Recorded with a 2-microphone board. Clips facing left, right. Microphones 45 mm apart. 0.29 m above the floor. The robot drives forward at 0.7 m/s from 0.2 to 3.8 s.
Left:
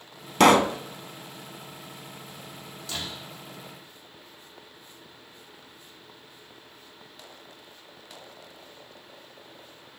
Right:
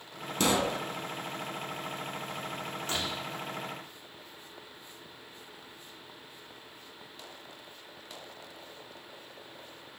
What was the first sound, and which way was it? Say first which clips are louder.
A pop: left 10 dB; 75° left (ahead or behind).